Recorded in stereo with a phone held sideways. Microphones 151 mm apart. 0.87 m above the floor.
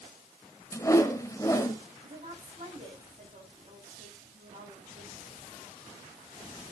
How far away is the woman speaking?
About 7.5 m.